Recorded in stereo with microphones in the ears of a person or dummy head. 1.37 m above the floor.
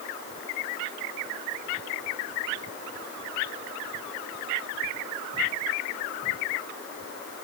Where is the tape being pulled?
I don't hear tape being pulled.